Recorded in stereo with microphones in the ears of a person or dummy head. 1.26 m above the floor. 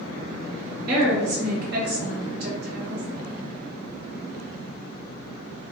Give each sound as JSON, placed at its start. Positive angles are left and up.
{"t": 0.9, "sound": "a woman speaking", "side_deg": -55, "distance_m": 1.1}